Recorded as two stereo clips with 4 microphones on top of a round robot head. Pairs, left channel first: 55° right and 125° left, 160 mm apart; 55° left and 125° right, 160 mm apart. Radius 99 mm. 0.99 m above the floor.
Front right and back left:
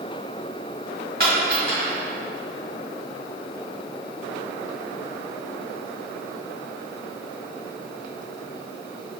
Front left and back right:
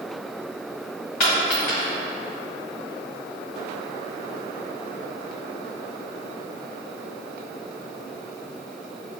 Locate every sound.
1.2 s a dropped coin: 90° left, 1.8 m